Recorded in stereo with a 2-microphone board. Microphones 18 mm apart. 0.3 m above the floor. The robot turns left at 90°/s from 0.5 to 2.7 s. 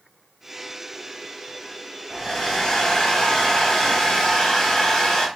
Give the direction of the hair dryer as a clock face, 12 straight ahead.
7 o'clock.